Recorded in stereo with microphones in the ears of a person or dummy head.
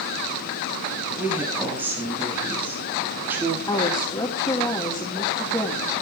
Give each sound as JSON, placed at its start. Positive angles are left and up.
{"t": 1.1, "sound": "a woman speaking", "side_deg": -10, "distance_m": 8.5}
{"t": 3.7, "sound": "a woman speaking", "side_deg": 15, "distance_m": 3.0}